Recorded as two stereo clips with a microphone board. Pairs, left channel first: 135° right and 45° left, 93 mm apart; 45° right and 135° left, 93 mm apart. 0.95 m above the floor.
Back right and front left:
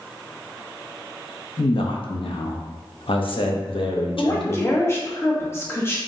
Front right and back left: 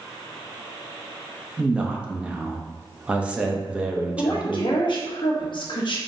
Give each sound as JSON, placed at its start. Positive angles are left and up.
{"t": 1.6, "sound": "a man speaking", "azimuth_deg": -150, "distance_m": 0.8}
{"t": 4.2, "sound": "a woman speaking", "azimuth_deg": -75, "distance_m": 1.0}